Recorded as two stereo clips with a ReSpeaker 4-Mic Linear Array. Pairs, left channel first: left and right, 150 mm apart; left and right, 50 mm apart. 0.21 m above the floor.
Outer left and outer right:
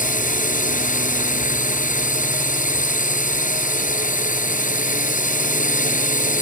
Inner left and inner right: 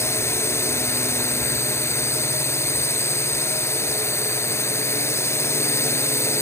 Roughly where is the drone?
Left.